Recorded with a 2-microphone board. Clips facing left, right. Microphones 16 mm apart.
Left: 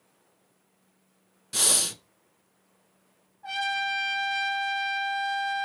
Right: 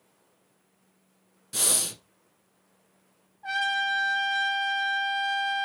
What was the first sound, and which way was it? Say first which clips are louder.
Breathing: left 3 dB; 15° left (ahead or behind).